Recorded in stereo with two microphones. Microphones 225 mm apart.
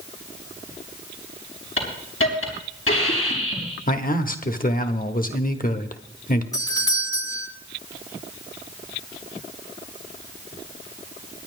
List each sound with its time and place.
1.8 s a hiss: 75° left (ahead or behind), 4.5 m
3.9 s a man speaking: 40° left (ahead or behind), 1.2 m
6.5 s a doorbell: 15° left (ahead or behind), 1.5 m